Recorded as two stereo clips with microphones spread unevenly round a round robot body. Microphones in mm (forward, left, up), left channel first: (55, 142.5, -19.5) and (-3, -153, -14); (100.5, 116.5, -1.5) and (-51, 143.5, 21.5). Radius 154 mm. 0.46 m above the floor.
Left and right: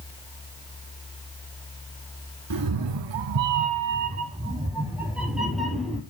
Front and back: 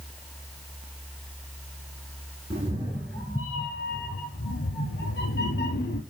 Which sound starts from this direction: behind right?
A cat meowing, at 2.5 s.